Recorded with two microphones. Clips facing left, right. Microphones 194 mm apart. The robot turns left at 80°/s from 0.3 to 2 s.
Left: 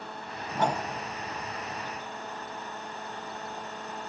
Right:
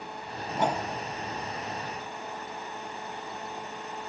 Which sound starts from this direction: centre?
A whoosh, at 0.5 s.